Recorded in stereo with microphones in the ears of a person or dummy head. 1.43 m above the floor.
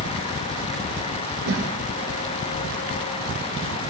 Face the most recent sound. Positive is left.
turn(degrees=-70)  # may be behind; listen again after turning